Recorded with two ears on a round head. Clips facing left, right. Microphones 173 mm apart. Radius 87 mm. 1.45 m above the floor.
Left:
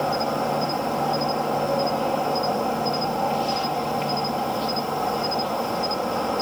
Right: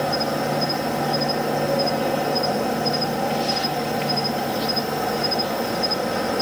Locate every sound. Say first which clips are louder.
0.0 s an insect: right 1 dB; 20° right (ahead or behind)